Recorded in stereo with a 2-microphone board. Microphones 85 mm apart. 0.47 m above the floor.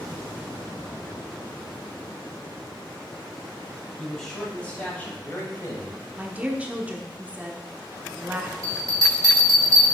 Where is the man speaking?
Centre (ahead or behind), 3 m; by 6.1 s 40° left (ahead or behind), 2 m.